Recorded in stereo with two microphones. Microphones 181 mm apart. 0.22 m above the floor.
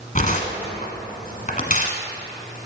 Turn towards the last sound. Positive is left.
turn(degrees=45)  # may be behind; listen again after turning